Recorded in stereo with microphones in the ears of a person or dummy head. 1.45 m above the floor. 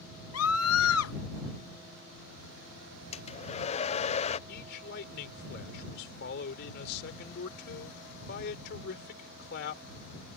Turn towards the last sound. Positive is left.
turn(degrees=55)  # may be behind; listen again after turning